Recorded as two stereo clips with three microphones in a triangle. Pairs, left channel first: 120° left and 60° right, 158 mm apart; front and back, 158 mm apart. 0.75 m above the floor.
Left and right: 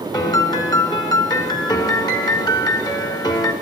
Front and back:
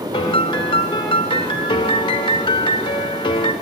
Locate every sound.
0.1 s a piano: 55° left, 1.4 m